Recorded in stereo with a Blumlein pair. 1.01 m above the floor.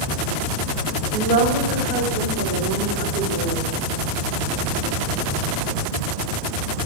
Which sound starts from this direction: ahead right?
A woman speaking, at 1.1 s.